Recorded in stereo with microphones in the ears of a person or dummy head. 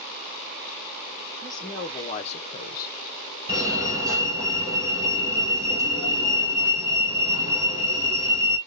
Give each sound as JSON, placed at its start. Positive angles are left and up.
{"t": 1.4, "sound": "a woman speaking", "side_deg": 25, "distance_m": 1.6}
{"t": 3.5, "sound": "a fire alarm", "side_deg": -20, "distance_m": 1.6}